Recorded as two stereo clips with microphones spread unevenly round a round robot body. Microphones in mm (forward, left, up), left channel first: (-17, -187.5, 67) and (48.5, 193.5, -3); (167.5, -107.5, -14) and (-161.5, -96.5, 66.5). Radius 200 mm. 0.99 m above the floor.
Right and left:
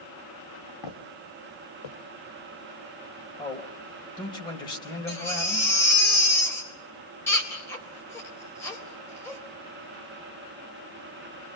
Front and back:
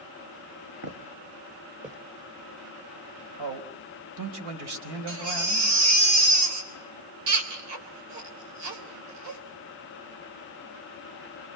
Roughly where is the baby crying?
Behind.